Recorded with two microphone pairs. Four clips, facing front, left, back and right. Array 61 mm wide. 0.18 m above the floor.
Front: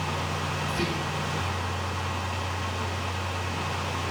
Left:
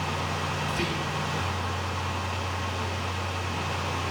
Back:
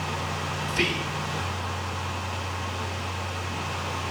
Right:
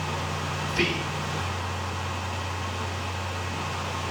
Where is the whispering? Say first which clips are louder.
Right 2 dB, back 5 dB; 145° right, 4.5 m.